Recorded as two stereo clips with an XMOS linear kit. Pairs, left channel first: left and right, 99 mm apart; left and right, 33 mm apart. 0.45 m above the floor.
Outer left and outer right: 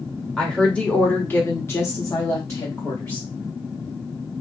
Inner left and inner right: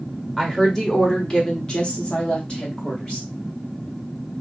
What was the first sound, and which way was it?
A woman speaking, 10° left (ahead or behind).